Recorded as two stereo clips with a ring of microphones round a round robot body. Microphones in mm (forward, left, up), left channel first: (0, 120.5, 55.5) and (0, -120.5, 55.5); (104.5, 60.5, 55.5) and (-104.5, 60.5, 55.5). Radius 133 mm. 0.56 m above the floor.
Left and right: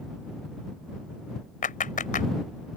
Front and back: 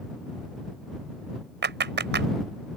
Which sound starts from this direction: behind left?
A clap, at 1.6 s.